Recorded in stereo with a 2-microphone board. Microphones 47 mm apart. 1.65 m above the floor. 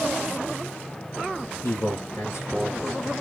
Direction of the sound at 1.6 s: 65° left (ahead or behind).